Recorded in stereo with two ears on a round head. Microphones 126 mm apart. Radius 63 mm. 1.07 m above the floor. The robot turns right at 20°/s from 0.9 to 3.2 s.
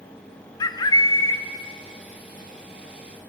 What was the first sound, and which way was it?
A bird, 30° left (ahead or behind).